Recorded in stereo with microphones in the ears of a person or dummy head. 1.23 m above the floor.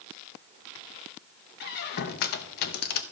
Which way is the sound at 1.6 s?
55° left (ahead or behind).